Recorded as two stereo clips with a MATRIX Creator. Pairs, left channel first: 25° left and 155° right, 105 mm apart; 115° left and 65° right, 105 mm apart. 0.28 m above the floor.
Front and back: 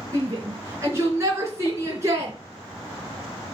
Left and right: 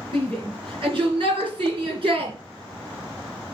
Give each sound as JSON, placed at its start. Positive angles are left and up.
{"t": 0.1, "sound": "a shout", "azimuth_deg": -95, "distance_m": 3.5}